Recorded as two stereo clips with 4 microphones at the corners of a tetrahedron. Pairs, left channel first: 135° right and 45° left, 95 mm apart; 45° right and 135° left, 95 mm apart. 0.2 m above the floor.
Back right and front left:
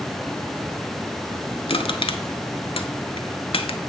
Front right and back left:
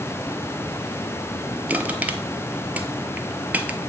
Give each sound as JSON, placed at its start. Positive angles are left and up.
{"t": 1.7, "sound": "crushing", "azimuth_deg": -150, "distance_m": 0.6}